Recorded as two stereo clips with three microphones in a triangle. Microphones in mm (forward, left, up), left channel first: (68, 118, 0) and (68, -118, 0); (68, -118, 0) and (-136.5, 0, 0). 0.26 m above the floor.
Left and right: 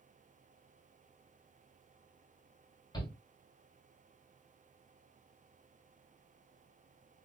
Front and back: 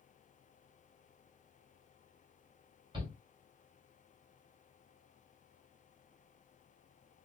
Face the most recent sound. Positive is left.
turn(degrees=125)